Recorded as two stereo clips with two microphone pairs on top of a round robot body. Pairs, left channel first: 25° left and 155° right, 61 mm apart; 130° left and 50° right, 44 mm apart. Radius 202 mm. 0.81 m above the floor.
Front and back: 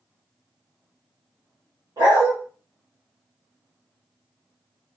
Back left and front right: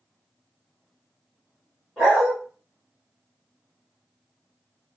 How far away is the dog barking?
About 1.4 m.